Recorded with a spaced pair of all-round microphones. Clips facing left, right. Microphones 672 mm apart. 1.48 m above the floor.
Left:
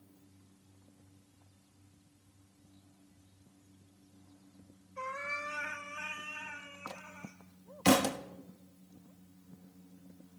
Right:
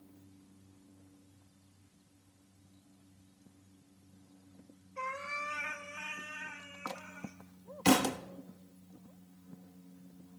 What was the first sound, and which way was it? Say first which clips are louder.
A cat meowing: left 1 dB; 55° right (ahead or behind).